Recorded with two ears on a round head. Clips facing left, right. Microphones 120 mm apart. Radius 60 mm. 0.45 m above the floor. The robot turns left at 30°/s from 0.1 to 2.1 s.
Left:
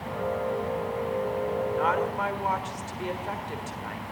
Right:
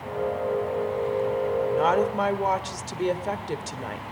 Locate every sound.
1.7 s a woman speaking: 35° right (ahead or behind), 1.5 m; by 4.0 s 40° right (ahead or behind), 1.5 m